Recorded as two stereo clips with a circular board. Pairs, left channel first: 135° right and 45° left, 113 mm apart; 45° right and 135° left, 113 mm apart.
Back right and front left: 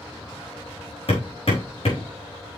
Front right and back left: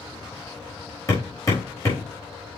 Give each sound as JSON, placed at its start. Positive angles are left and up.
{"t": 1.1, "sound": "hammering", "azimuth_deg": -105, "distance_m": 5.0}